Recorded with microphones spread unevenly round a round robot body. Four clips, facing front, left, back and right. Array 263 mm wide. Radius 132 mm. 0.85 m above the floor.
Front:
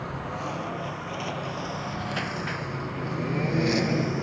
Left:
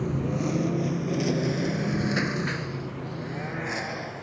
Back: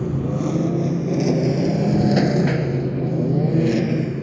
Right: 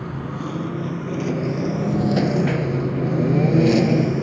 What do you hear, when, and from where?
0.0 s a lawn mower: 170° left; by 4.2 s 100° right